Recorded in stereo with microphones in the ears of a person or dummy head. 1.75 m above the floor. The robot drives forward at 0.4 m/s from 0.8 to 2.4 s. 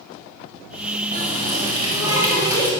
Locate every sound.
1.1 s a running tap: 15° right (ahead or behind), 1.6 m